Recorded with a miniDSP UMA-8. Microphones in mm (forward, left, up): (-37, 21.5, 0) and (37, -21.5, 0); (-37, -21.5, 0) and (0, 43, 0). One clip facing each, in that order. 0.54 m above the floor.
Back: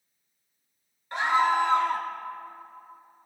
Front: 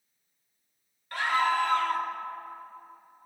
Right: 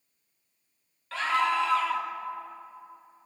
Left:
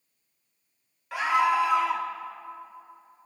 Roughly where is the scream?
Behind left.